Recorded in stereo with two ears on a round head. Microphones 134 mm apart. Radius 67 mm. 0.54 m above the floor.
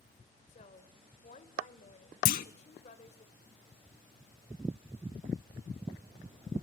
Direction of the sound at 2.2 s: 65° left (ahead or behind).